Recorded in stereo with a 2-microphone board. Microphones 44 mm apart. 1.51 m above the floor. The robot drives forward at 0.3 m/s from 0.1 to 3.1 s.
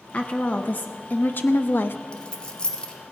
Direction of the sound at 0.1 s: 35° left (ahead or behind).